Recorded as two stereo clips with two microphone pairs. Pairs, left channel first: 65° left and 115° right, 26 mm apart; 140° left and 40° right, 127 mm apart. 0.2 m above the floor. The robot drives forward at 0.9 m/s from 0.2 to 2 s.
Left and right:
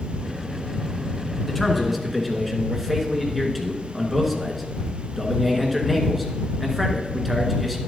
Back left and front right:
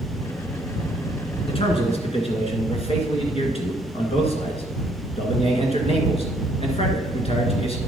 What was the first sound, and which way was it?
A man speaking, 150° left.